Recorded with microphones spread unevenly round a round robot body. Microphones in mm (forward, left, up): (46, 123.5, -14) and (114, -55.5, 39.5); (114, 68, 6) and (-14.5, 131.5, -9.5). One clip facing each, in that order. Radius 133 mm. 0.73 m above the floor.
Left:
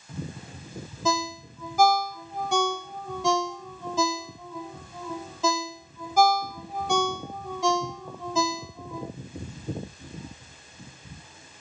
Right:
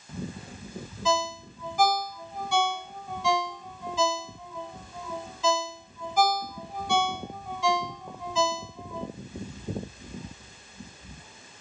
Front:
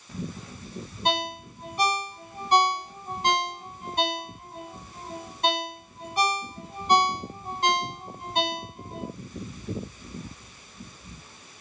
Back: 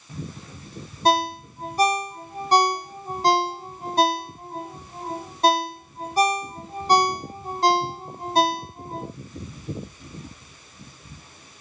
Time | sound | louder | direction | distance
1.1 | a ringtone | even, back 7 dB | 110° left | 0.7 m